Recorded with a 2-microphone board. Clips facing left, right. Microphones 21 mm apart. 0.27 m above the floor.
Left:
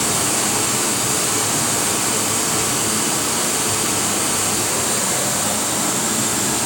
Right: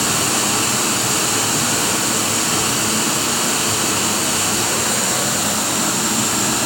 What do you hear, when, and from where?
0.0 s running water: 50° right (ahead or behind), 1.9 m